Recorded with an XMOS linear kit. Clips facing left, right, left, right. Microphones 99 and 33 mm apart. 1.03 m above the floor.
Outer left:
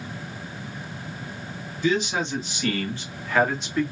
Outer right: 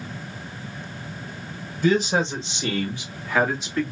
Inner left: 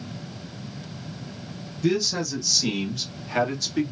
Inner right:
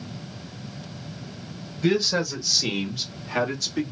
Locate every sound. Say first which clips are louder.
1.8 s a man speaking: outer right 3 dB, inner right 2 dB; 40° right (ahead or behind), 1.4 m; by 3.9 s 5° left (ahead or behind), 1.8 m